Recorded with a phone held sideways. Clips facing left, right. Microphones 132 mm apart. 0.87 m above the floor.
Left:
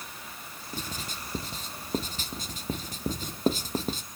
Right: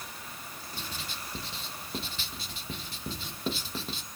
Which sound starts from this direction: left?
Writing, at 0.7 s.